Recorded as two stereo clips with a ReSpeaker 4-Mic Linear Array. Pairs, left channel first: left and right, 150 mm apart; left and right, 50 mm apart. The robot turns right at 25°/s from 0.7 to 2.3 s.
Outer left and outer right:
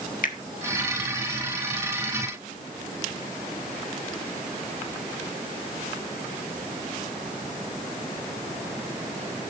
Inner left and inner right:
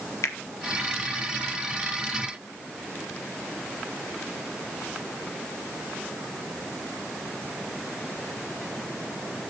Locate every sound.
0.2 s a finger snap: 65° left (ahead or behind), 1.4 m